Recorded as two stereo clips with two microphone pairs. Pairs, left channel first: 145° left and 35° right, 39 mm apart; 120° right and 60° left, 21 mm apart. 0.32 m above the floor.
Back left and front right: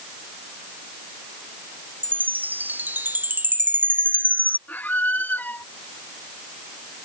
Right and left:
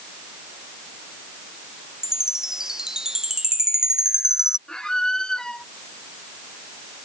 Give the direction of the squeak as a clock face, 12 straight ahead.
6 o'clock.